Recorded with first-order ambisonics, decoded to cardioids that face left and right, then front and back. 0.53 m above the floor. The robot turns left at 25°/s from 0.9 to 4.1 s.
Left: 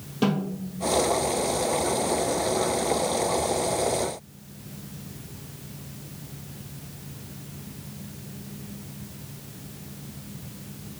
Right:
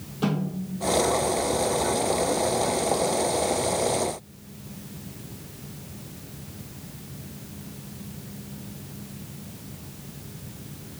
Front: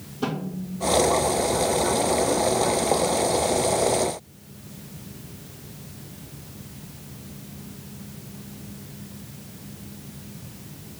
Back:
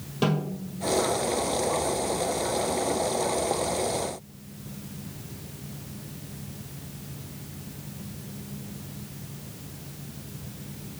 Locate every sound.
0.2 s a snare drum: 135° left, 1.8 m